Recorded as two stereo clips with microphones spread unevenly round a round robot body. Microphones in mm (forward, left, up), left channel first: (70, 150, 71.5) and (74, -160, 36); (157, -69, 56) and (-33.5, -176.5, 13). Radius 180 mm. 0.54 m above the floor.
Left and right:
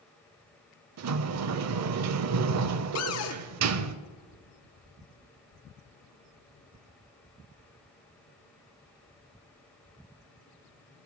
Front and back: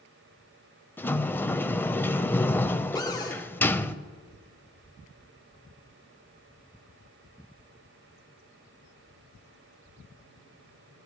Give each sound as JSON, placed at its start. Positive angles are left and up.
{"t": 1.0, "sound": "a sliding door", "azimuth_deg": -45, "distance_m": 0.6}
{"t": 3.0, "sound": "a cupboard door", "azimuth_deg": 110, "distance_m": 1.0}